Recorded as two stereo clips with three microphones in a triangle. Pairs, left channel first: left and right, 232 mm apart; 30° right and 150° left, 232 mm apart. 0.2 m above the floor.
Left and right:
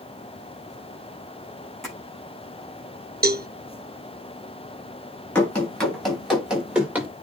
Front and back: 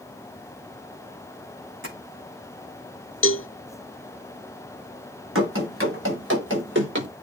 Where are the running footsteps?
175° left, 6 m; by 7.1 s 170° right, 6 m.